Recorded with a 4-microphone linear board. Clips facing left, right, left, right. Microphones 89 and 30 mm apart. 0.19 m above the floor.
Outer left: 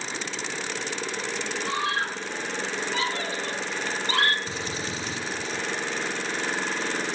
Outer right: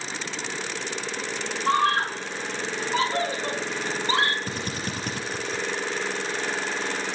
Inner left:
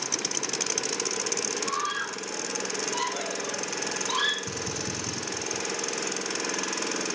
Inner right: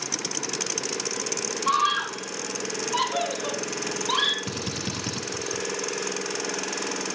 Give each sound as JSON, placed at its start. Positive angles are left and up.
{"t": 1.7, "sound": "a scream", "side_deg": -50, "distance_m": 5.5}
{"t": 4.5, "sound": "a drill", "side_deg": -50, "distance_m": 6.0}